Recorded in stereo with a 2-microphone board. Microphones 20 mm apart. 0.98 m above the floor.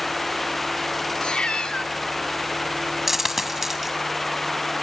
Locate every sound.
1.2 s a cat meowing: 60° left (ahead or behind), 1.3 m
3.1 s a dropped coin: 15° right (ahead or behind), 1.5 m